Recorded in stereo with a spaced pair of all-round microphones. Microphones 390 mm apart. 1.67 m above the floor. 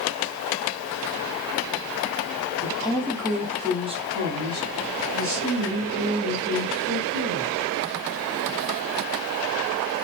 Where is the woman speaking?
15° left (ahead or behind), 1.2 m; by 7.7 s 50° right (ahead or behind), 3 m.